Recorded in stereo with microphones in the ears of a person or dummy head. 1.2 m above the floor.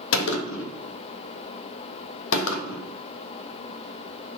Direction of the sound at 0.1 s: 80° left.